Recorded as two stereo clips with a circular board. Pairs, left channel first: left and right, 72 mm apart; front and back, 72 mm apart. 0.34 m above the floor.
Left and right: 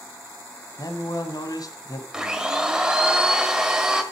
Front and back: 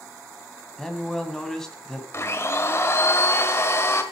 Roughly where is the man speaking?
Left.